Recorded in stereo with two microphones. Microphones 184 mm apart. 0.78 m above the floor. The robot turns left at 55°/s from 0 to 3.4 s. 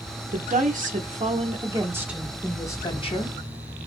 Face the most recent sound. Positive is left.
turn(degrees=120)